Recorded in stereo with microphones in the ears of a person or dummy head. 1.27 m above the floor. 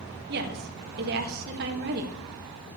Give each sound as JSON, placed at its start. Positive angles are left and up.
{"t": 0.3, "sound": "a woman speaking", "side_deg": -55, "distance_m": 1.6}